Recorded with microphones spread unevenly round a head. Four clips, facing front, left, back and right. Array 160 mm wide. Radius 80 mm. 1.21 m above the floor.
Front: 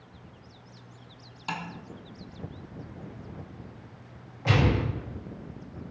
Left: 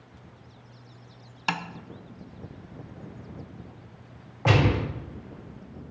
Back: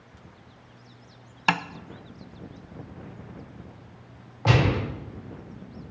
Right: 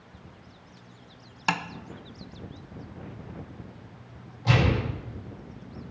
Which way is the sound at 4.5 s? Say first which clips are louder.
Left 2 dB, back 2 dB; 125° left.